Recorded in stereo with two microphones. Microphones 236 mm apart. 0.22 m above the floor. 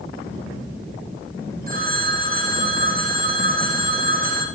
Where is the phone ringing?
40° right (ahead or behind), 5.5 m.